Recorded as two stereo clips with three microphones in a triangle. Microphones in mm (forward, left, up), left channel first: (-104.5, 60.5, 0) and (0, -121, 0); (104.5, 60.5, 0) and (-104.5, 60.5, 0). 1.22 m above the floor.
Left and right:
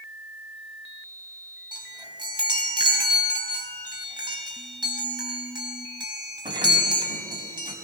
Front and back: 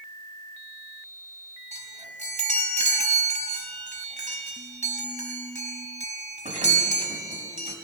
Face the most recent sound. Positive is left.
turn(degrees=-130)